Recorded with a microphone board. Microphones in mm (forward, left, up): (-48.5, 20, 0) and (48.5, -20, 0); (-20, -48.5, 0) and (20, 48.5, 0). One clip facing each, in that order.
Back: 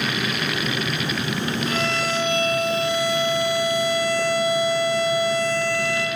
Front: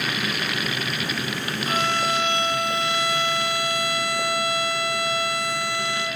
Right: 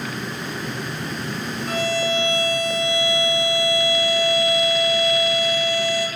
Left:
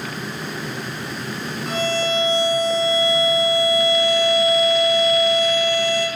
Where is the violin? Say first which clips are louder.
Front 5 dB, left 1 dB; 60° left, 0.7 m.